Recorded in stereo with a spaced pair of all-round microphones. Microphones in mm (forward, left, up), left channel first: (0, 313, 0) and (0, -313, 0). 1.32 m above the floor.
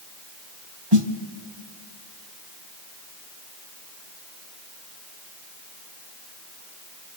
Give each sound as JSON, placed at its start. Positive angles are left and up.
{"t": 0.9, "sound": "a snare drum", "side_deg": -40, "distance_m": 1.3}